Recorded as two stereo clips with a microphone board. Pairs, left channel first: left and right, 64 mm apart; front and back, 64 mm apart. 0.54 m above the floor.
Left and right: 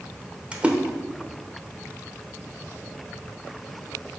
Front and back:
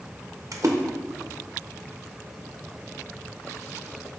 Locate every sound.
0.5 s a splash: 160° right, 0.8 m